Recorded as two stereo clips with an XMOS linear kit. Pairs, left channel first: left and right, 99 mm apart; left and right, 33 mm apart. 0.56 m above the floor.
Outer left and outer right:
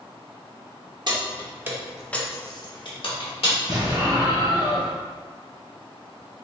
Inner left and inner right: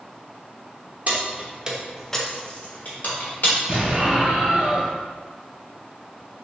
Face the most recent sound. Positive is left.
turn(degrees=-40)  # may be behind; listen again after turning